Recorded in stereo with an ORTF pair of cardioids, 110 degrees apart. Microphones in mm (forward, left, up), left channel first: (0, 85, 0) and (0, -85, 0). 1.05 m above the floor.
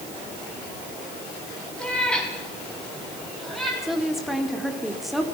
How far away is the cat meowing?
About 5 m.